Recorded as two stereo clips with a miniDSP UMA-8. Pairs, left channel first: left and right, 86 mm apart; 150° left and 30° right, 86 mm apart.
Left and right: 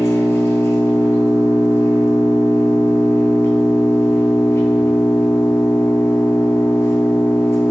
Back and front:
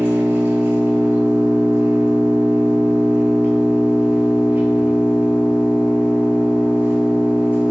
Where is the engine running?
35° left, 1.0 m.